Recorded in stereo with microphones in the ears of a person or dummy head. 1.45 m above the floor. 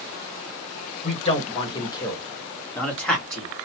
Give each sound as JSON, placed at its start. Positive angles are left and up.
{"t": 1.0, "sound": "a man speaking", "side_deg": 35, "distance_m": 1.7}